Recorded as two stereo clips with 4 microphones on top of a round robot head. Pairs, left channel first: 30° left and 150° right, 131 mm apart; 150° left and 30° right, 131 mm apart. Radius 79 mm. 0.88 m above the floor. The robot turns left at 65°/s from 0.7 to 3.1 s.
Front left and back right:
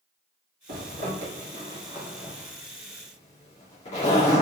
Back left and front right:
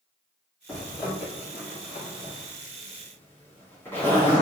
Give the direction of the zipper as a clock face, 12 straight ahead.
4 o'clock.